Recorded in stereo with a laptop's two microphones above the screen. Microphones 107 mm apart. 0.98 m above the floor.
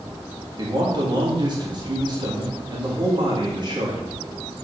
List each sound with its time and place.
0.6 s a man speaking: 45° right (ahead or behind), 1.6 m